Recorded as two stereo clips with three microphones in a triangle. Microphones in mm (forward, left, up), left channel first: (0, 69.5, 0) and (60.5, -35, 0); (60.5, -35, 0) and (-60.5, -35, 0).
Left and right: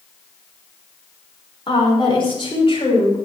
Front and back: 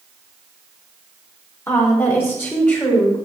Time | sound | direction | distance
1.7 | a woman speaking | 70° left | 5.5 m